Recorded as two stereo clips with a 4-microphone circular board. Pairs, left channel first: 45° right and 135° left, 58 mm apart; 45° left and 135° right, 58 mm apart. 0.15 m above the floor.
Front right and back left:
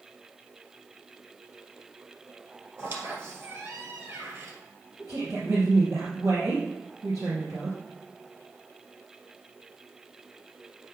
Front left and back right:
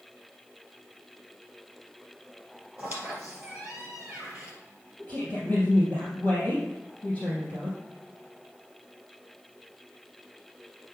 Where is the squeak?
155° left, 2 m.